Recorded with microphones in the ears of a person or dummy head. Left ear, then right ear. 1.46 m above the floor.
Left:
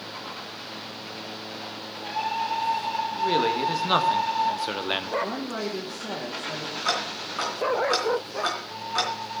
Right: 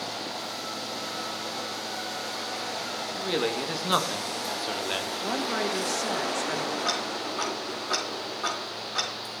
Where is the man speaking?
20° right (ahead or behind), 2 m; by 5.1 s 15° left (ahead or behind), 0.9 m.